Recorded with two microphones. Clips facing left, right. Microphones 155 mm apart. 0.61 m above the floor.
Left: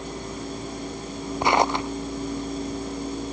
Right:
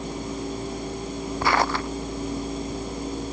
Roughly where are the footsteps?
Centre.